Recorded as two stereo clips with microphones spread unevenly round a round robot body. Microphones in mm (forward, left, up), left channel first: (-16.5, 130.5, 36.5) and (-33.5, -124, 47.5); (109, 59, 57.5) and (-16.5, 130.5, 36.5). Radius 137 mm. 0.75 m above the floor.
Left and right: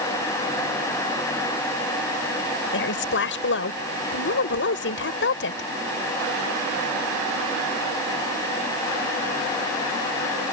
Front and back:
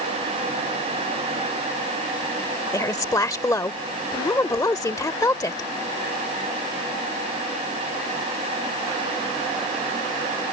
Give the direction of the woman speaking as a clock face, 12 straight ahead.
11 o'clock.